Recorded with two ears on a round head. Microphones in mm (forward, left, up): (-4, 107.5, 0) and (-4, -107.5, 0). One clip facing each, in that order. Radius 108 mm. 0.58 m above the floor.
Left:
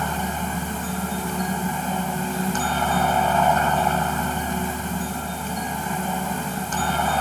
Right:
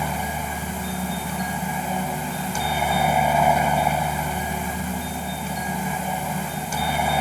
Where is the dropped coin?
I don't hear a dropped coin.